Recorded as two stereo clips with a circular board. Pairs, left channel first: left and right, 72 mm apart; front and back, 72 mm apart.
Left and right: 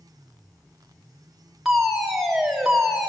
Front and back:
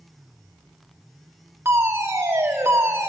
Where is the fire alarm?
175° right, 2 m.